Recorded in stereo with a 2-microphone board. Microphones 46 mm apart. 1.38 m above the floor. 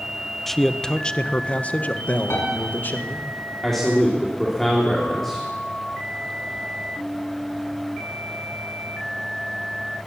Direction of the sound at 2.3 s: 80° left.